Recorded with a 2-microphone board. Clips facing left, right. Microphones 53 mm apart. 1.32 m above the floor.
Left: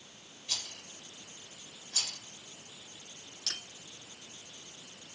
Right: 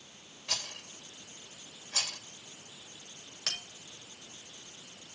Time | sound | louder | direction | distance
0.5 | a rattle | right 3 dB | 70° right (ahead or behind) | 2.5 m
3.5 | a bell | right 4 dB | 85° right | 7 m